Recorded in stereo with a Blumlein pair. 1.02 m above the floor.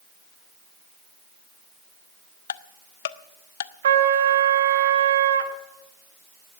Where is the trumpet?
60° right, 1.3 m.